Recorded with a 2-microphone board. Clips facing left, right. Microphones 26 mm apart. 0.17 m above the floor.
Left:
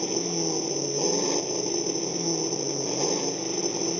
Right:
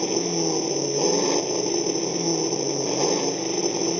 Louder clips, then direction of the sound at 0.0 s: Right 4 dB; 20° right (ahead or behind).